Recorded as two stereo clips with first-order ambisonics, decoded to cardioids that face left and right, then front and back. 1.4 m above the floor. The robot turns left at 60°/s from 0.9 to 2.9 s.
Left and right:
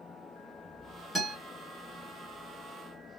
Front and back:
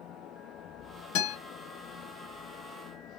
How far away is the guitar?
About 2.0 m.